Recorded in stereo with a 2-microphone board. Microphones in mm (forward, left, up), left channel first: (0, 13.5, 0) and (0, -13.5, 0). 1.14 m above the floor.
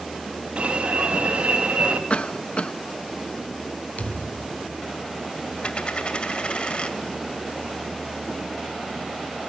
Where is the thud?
75° left (ahead or behind), 3 m.